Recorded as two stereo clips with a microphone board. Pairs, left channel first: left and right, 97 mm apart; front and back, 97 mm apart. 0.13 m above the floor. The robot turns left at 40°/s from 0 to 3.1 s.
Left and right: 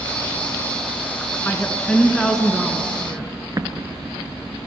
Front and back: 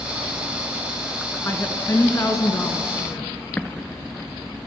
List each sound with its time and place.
1.4 s a woman speaking: 40° left, 1.6 m; by 3.2 s 30° right, 1.6 m
3.6 s an explosion: 65° right, 0.8 m